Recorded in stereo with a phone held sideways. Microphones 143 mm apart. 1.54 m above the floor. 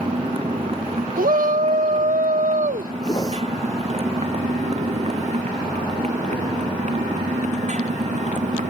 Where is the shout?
75° right (ahead or behind).